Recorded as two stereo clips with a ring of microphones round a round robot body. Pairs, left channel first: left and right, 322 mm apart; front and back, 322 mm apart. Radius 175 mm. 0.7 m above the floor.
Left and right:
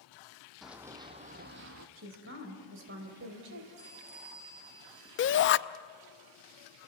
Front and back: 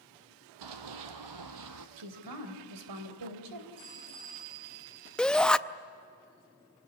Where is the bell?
140° right, 10 m.